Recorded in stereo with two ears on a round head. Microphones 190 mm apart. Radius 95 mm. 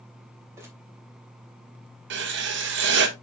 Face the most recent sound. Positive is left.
turn(degrees=-55)  # may be behind; listen again after turning